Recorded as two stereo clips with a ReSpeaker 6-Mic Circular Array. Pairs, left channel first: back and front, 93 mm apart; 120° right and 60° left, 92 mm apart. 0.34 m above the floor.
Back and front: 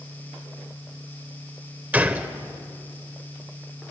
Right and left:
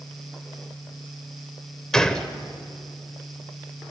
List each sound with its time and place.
1.9 s a gunshot: 45° right, 1.2 m